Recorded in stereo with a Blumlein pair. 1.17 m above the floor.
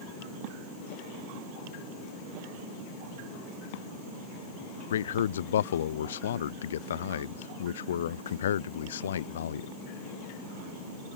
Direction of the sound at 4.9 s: 65° left.